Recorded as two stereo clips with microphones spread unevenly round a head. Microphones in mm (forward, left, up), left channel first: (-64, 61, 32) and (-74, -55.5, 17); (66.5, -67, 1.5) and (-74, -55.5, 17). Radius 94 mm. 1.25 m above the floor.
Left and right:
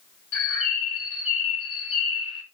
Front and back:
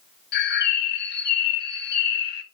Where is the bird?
Straight ahead, 1.4 m.